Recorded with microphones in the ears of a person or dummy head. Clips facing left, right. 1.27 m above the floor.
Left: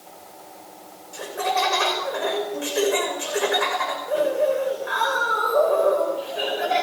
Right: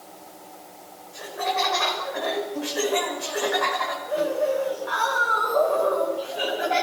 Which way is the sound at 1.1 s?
50° left (ahead or behind).